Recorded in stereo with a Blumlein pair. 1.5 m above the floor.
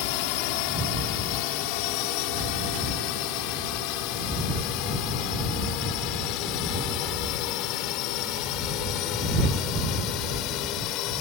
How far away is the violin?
No violin in this recording.